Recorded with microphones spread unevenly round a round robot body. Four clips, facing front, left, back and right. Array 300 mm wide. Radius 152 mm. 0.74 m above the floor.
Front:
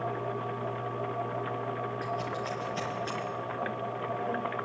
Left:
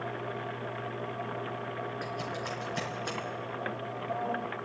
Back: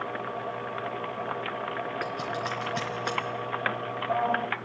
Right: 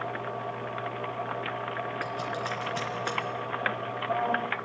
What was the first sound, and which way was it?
Scissors, 165° right.